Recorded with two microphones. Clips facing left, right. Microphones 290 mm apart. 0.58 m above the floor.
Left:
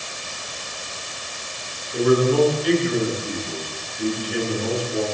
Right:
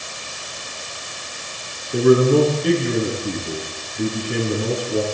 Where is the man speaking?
55° right (ahead or behind), 7 m.